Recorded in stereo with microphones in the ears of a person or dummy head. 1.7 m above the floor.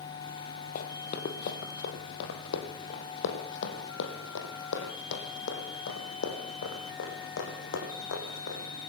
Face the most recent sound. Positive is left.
turn(degrees=75)  # may be behind; listen again after turning